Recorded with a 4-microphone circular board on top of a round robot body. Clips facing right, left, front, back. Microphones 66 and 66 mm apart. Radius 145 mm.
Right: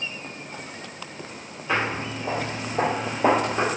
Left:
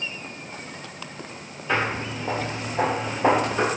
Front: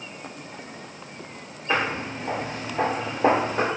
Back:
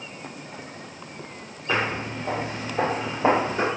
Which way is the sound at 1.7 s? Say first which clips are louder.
Left 1 dB, even; 165° right.